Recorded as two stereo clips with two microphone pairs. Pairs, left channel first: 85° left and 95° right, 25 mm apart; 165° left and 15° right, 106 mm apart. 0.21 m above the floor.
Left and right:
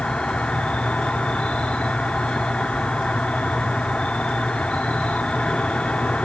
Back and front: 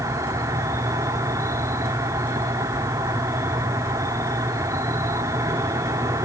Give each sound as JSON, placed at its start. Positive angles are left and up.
{"t": 0.0, "sound": "an insect", "azimuth_deg": 45, "distance_m": 1.4}